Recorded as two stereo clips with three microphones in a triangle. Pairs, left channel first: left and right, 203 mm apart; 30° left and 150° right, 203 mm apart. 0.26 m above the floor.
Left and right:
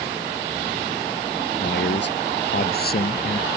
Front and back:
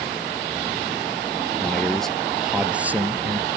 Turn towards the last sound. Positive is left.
turn(degrees=135)